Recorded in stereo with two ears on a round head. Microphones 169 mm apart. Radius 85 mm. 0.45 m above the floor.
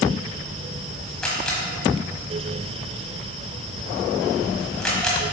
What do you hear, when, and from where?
1.2 s a camera shutter: 5° left (ahead or behind), 1.3 m